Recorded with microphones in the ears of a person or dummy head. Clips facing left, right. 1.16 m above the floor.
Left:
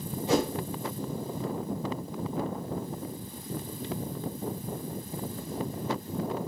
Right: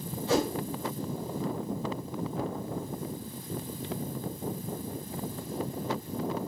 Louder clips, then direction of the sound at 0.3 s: Left 1 dB; 20° left (ahead or behind).